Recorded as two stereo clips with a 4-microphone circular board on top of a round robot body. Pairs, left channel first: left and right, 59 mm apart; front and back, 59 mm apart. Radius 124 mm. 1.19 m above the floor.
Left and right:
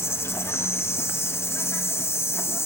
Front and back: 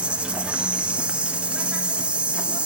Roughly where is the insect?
Behind left.